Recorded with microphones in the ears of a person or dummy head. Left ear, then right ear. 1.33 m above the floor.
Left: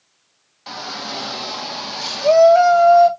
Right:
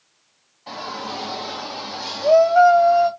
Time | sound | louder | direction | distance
0.7 | a shout | left 2 dB | 55° left (ahead or behind) | 2.5 m